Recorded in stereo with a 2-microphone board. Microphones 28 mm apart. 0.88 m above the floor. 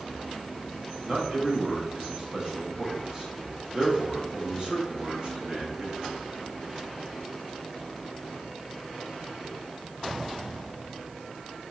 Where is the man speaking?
30° right (ahead or behind), 1.4 m.